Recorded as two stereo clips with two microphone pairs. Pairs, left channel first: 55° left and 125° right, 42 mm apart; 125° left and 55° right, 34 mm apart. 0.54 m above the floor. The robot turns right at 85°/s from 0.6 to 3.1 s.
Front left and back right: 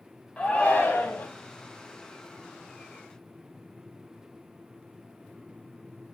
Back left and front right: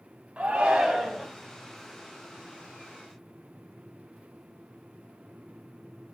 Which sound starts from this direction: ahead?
A shout, at 0.4 s.